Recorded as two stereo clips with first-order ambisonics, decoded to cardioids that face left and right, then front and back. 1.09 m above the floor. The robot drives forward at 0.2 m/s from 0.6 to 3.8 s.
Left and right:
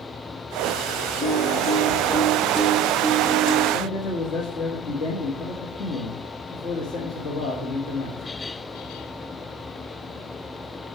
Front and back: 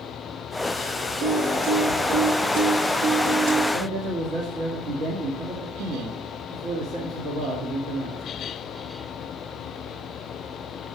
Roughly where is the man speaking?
Behind left.